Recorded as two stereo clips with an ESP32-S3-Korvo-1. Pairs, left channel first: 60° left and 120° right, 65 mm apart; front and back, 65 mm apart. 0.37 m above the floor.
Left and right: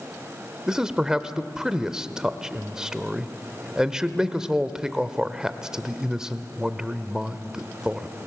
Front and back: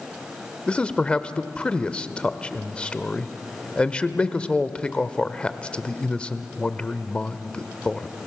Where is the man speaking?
55° right, 0.9 m.